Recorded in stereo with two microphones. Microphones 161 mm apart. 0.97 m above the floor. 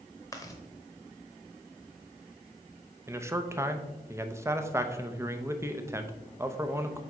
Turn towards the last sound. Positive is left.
turn(degrees=-15)  # may be behind; listen again after turning